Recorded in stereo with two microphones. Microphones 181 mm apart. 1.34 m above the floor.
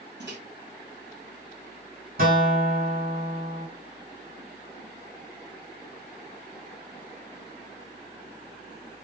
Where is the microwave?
75° right (ahead or behind), 1.4 m.